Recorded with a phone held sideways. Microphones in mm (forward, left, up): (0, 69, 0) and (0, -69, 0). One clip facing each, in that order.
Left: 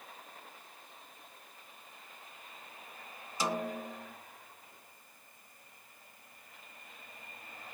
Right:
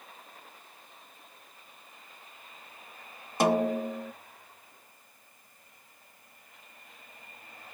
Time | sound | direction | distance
3.4 | a snare drum | 60° right (ahead or behind) | 0.7 m